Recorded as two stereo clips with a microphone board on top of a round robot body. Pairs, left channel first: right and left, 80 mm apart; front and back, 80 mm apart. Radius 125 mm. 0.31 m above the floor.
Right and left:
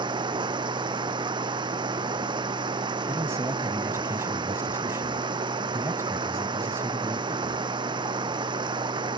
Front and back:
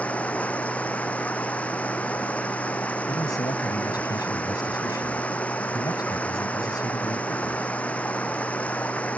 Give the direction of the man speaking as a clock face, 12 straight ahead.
11 o'clock.